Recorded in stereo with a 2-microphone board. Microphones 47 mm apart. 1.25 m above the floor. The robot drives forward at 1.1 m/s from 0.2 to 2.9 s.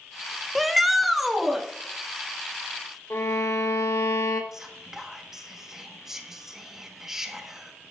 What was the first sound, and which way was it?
A shout, centre (ahead or behind).